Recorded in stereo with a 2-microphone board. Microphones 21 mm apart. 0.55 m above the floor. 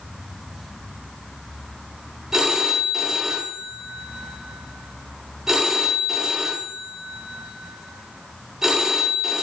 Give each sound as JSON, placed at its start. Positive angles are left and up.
{"t": 2.3, "sound": "a phone ringing", "side_deg": -10, "distance_m": 0.8}